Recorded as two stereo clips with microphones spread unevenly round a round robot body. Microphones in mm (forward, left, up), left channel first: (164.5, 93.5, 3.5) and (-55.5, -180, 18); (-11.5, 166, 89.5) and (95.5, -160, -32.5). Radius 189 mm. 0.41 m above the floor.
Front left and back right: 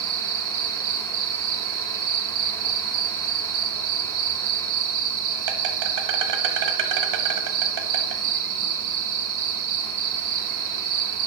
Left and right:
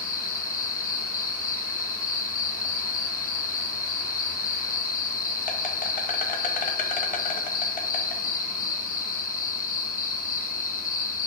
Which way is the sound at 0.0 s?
175° right.